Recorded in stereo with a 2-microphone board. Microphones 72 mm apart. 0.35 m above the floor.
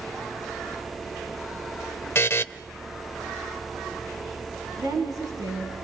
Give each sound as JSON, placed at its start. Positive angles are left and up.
{"t": 2.1, "sound": "a buzzer", "side_deg": 35, "distance_m": 0.6}
{"t": 4.8, "sound": "a woman speaking", "side_deg": -60, "distance_m": 4.0}